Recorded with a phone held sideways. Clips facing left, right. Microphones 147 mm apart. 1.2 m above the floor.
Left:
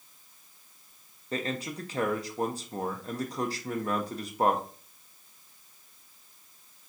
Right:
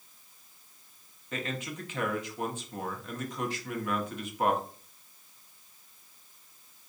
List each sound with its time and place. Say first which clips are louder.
1.3 s a man speaking: left 3 dB; 35° left (ahead or behind), 0.5 m